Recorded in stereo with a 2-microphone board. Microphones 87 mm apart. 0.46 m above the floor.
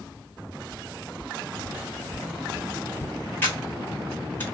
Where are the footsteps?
50° left (ahead or behind), 1.3 m; by 3.2 s 20° left (ahead or behind), 0.5 m.